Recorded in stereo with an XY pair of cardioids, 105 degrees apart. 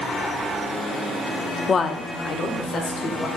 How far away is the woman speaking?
About 0.5 m.